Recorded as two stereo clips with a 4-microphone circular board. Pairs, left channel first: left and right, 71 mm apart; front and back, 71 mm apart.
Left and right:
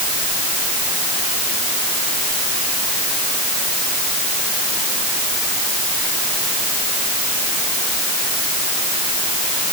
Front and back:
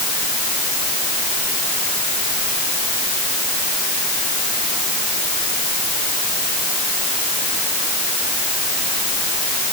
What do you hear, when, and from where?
Only background noise.